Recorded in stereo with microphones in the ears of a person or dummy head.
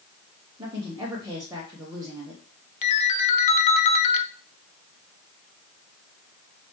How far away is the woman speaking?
About 0.8 m.